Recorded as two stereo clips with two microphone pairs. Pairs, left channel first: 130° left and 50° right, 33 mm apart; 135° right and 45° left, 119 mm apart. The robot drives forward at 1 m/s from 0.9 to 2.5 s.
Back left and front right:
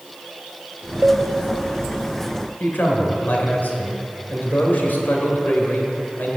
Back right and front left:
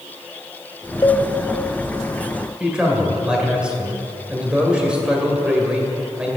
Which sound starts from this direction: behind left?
A man speaking, at 2.6 s.